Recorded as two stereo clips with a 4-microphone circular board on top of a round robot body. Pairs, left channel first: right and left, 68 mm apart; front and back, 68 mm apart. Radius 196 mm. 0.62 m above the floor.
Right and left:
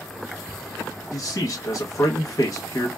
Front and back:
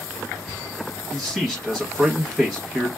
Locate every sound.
1.1 s a man speaking: 100° right, 1.0 m